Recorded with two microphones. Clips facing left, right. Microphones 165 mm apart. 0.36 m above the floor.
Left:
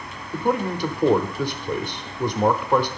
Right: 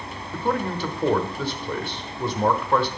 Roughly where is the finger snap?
I don't hear a finger snap.